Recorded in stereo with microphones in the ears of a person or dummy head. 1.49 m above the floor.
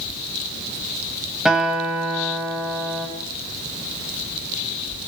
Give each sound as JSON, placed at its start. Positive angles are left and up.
{"t": 1.4, "sound": "a guitar", "side_deg": 0, "distance_m": 7.5}